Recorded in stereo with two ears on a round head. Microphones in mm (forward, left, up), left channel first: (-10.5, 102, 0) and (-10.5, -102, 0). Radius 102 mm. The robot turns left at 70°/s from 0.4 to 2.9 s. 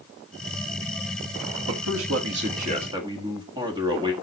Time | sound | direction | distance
1.7 | a man speaking | 70° right | 1.6 m